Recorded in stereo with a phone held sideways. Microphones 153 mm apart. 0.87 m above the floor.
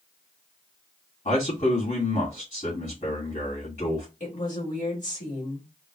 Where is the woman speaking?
55° left (ahead or behind), 2 m.